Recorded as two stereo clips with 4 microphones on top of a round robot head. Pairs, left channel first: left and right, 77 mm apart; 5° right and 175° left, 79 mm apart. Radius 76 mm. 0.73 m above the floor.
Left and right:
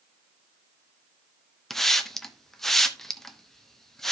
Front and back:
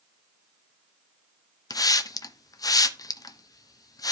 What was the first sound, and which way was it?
A hiss, 5° left.